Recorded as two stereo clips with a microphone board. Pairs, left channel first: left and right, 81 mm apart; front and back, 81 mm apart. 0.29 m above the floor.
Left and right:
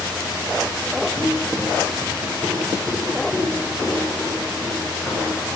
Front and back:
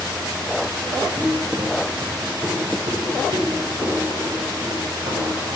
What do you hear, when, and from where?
1.2 s footsteps: 155° right, 7 m; by 5.6 s 165° right, 8.5 m